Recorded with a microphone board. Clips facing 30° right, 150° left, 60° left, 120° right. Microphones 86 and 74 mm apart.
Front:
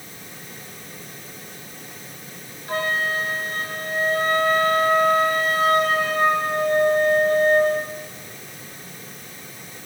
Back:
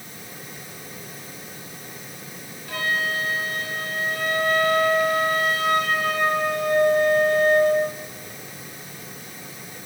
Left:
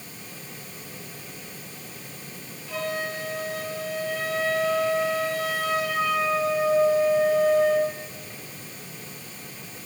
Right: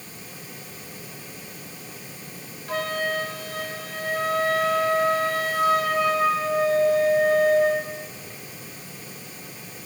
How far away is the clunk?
I don't hear a clunk.